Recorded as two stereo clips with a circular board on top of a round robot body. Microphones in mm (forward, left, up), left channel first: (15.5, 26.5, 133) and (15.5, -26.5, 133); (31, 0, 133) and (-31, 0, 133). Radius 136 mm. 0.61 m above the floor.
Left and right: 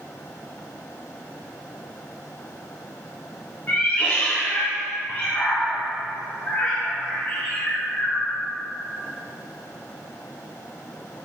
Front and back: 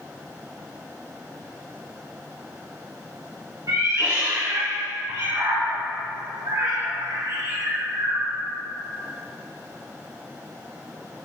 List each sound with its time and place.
3.7 s a cat meowing: 150° left, 1.8 m